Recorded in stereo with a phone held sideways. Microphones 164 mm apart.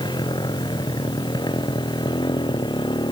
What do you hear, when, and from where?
0.0 s a motorcycle: 25° left (ahead or behind); by 3.1 s 30° left (ahead or behind)